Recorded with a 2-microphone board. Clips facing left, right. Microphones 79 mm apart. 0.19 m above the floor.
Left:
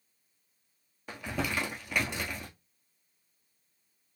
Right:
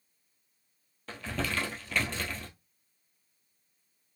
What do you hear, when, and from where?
1.1 s crumpling: 15° left (ahead or behind), 1.1 m